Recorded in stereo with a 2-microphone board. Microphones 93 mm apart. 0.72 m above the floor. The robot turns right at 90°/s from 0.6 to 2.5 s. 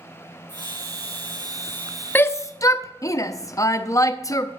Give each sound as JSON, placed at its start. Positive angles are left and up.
{"t": 0.5, "sound": "a hiss", "azimuth_deg": 55, "distance_m": 1.7}
{"t": 2.1, "sound": "a shout", "side_deg": 20, "distance_m": 0.7}